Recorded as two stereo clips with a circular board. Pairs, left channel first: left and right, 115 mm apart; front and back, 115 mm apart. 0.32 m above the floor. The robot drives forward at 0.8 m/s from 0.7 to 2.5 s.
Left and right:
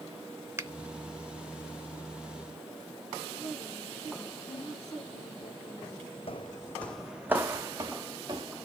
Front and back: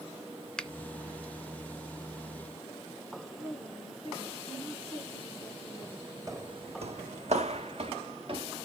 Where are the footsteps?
120° left, 0.8 m; by 8.7 s 140° right, 2 m.